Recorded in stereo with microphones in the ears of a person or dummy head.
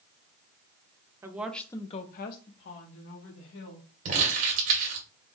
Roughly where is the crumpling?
Right.